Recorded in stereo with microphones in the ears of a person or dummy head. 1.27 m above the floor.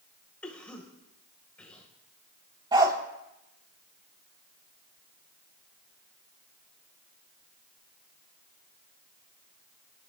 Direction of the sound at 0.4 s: 5° left (ahead or behind).